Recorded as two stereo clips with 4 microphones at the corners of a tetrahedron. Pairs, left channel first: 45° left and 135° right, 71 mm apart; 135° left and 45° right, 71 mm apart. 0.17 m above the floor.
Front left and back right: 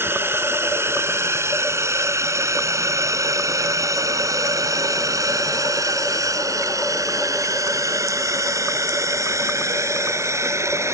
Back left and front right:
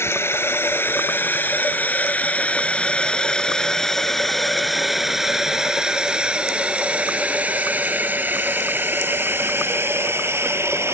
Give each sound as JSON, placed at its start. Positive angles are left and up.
{"t": 0.0, "sound": "a drone", "azimuth_deg": 180}